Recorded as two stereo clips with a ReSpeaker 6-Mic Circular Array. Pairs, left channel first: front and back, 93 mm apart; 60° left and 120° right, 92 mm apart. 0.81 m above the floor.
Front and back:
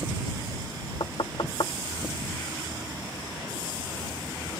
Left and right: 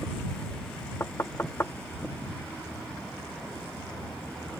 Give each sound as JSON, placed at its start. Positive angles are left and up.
{"t": 1.0, "sound": "knocking", "azimuth_deg": 0}